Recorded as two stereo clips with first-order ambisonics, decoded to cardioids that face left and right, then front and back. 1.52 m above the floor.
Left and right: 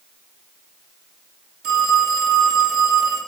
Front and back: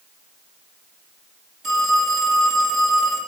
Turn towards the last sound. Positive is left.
turn(degrees=-85)